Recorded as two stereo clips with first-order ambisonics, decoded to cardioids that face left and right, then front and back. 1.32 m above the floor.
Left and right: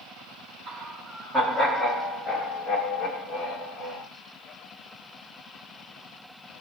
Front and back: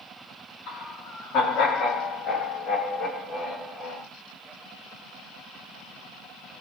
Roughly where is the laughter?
Ahead right.